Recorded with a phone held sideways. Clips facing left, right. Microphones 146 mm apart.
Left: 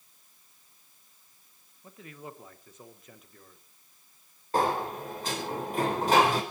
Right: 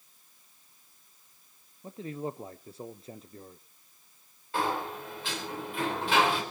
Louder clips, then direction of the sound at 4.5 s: Left 4 dB; 40° left (ahead or behind).